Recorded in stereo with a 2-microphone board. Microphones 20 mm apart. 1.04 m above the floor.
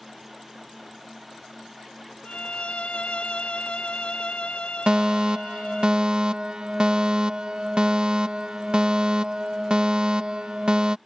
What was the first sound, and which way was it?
A violin, 80° left.